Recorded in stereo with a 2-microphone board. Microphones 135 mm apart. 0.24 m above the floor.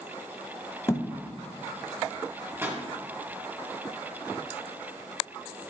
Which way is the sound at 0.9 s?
20° left (ahead or behind).